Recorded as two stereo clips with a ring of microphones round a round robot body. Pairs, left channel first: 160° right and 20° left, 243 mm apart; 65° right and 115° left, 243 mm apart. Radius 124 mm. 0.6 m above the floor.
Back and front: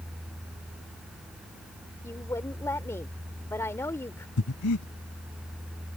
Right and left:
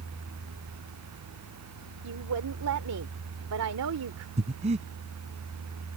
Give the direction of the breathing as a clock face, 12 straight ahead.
6 o'clock.